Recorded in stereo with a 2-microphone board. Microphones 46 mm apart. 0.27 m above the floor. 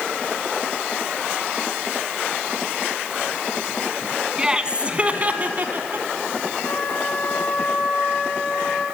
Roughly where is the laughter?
Centre.